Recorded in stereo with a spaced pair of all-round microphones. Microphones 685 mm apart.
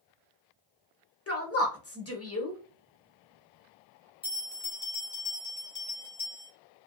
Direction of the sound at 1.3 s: 20° left (ahead or behind).